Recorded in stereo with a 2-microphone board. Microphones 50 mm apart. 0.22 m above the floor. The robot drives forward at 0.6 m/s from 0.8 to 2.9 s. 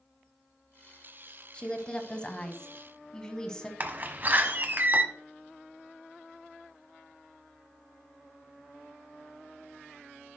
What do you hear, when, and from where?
1.5 s a woman speaking: 20° left (ahead or behind), 1.0 m; by 3.7 s 15° left (ahead or behind), 1.3 m
3.8 s a door slam: 40° right (ahead or behind), 1.0 m